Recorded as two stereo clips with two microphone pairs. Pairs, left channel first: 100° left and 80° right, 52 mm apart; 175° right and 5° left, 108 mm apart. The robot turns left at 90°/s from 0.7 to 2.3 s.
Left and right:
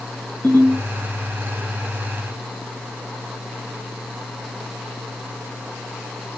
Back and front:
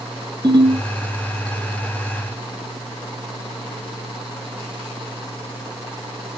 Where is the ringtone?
55° left, 5.5 m; by 0.8 s 45° left, 5.5 m.